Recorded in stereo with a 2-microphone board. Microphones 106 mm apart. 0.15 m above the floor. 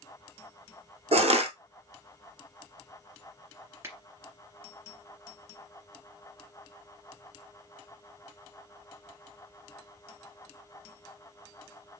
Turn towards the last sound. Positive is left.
turn(degrees=-25)  # may be behind; listen again after turning